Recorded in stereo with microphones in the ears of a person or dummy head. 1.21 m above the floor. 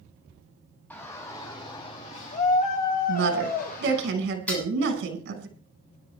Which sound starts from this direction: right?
A woman speaking, at 3.1 s.